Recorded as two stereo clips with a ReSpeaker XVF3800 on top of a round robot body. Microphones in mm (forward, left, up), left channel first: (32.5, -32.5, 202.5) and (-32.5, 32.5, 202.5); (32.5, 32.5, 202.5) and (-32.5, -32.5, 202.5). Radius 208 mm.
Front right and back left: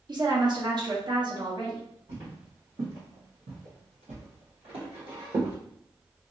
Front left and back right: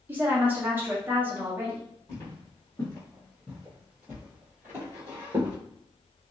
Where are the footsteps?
100° left, 1.8 m; by 5.5 s 175° left, 1.9 m.